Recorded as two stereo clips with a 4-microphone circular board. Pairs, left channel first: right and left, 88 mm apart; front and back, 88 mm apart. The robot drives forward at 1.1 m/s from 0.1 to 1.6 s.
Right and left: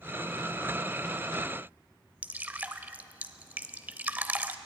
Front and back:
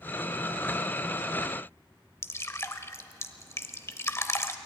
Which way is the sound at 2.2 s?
35° left.